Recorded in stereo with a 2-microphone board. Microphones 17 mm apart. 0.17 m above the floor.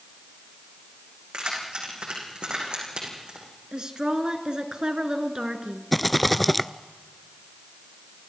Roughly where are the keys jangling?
Right.